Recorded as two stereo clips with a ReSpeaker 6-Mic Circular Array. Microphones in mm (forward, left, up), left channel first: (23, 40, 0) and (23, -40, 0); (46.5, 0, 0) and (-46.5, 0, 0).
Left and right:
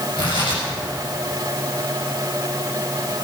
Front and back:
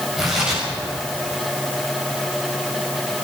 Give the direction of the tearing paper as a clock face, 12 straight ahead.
9 o'clock.